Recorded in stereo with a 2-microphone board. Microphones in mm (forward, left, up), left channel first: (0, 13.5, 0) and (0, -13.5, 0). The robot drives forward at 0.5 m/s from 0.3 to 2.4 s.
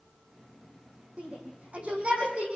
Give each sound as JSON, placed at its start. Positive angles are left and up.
{"t": 1.2, "sound": "a shout", "side_deg": -40, "distance_m": 8.0}